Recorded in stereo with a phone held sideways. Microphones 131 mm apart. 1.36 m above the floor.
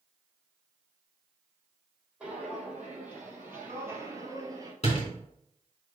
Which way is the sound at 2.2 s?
10° right (ahead or behind).